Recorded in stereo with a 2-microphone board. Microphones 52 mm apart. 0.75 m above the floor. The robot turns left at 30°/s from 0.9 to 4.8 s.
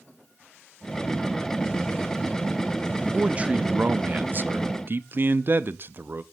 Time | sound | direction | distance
3.1 | a man speaking | 30° right | 0.5 m